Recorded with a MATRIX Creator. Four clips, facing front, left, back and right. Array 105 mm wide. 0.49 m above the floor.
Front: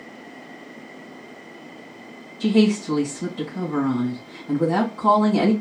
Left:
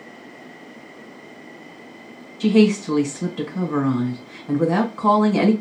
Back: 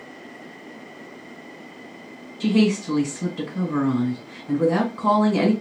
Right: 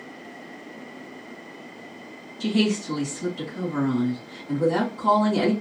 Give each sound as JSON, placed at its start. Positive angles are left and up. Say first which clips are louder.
{"t": 2.4, "sound": "a woman speaking", "louder": "left 7 dB, front 1 dB", "azimuth_deg": 110, "distance_m": 1.9}